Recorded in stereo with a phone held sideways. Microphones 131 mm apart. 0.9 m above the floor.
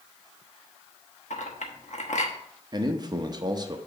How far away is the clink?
About 1.1 m.